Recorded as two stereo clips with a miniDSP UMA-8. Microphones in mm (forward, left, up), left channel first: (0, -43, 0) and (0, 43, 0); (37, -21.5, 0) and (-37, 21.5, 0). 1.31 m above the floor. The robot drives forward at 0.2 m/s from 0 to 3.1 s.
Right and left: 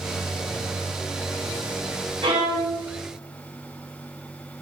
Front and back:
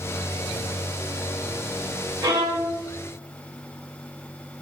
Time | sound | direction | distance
2.2 | a violin | 110° left | 0.8 m